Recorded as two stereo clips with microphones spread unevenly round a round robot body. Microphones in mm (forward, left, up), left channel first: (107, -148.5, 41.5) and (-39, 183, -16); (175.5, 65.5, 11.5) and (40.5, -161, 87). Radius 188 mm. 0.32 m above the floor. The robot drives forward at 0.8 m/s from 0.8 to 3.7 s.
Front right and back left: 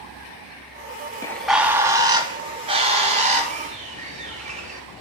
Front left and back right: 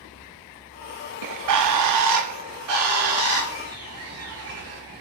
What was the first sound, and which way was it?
A bird, 150° right.